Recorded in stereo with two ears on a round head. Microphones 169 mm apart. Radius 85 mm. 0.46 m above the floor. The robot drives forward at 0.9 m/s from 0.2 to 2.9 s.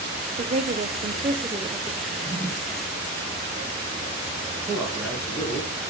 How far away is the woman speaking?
About 0.9 m.